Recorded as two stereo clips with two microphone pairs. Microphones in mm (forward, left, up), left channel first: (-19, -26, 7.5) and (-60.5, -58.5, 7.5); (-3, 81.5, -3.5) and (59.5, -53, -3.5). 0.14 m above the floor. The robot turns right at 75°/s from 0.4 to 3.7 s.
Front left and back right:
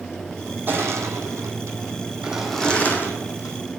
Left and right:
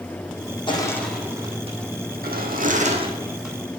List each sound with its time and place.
0.7 s crushing: 170° left, 1.3 m; by 3.7 s 35° left, 1.3 m